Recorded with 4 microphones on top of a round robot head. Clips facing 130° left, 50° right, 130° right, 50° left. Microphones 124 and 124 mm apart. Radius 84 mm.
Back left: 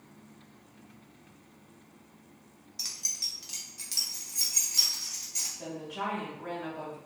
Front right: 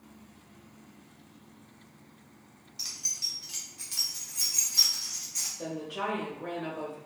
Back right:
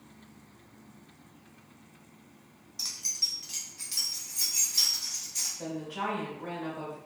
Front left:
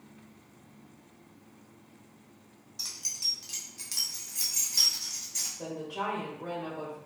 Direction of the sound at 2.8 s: 140° left.